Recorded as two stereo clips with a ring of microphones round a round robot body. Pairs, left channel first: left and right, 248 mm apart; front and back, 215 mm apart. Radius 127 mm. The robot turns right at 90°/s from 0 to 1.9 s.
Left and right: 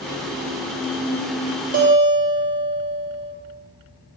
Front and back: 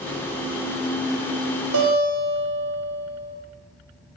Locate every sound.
1.7 s a guitar: 145° right, 3.5 m; by 3.3 s 135° right, 3.5 m